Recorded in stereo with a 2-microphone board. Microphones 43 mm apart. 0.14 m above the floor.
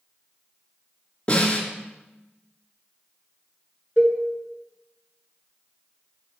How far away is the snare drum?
About 2 m.